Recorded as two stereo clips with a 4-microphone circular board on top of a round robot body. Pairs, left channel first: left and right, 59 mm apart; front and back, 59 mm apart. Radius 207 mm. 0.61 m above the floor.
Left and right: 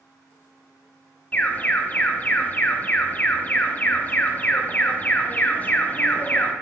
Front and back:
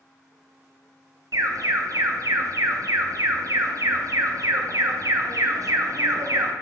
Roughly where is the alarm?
Behind left.